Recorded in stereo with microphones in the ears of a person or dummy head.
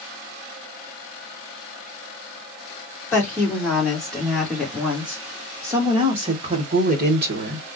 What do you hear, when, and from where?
3.1 s a woman speaking: 10° left (ahead or behind), 2.5 m; by 7.7 s 65° right (ahead or behind), 1.4 m